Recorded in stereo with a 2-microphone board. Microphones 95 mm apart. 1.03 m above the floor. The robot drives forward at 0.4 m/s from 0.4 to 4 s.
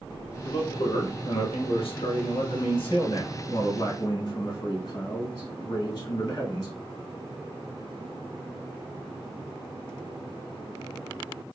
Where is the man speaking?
60° left (ahead or behind), 1.0 m; by 6.7 s 40° left (ahead or behind), 1.4 m.